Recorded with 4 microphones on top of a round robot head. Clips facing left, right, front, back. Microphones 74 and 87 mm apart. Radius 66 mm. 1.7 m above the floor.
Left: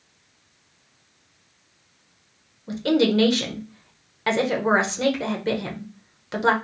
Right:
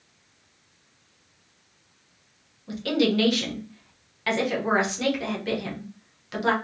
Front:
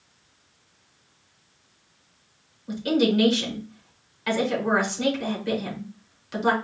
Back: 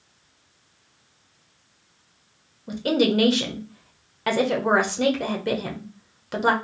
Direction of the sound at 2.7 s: 145° left.